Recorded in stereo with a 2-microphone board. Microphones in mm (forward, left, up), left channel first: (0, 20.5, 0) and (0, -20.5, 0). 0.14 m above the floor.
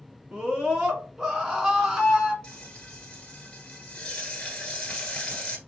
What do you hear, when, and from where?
0.3 s a scream: 15° right (ahead or behind), 1.3 m
2.4 s frying: 20° left (ahead or behind), 1.5 m